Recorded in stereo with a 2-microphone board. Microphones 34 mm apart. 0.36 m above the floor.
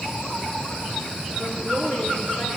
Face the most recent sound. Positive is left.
turn(degrees=70)  # may be behind; listen again after turning